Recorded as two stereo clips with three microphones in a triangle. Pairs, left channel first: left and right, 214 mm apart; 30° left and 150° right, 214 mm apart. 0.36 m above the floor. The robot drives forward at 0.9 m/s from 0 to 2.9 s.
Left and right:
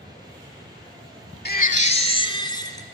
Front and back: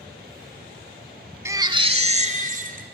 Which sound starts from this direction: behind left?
A baby crying, at 1.4 s.